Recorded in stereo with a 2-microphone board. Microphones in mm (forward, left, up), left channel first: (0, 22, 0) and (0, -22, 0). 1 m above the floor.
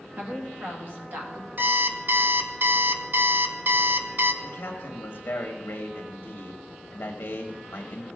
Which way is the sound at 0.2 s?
50° right (ahead or behind).